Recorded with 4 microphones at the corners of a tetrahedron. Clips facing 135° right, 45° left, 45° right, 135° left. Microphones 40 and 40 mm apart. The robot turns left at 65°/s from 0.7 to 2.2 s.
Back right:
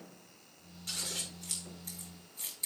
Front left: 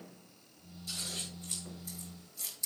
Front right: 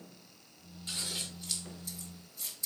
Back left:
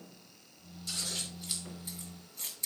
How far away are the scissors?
About 2.5 m.